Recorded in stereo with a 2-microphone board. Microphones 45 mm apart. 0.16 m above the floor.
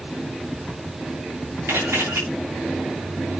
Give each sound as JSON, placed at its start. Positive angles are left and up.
{"t": 1.7, "sound": "a camera shutter", "side_deg": -80, "distance_m": 6.5}